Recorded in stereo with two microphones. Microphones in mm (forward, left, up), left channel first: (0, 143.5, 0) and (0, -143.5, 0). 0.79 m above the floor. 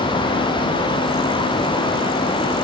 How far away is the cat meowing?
No cat meowing in this recording.